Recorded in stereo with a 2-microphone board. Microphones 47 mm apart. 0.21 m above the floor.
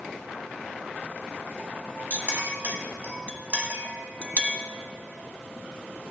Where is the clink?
35° right (ahead or behind), 1.0 m.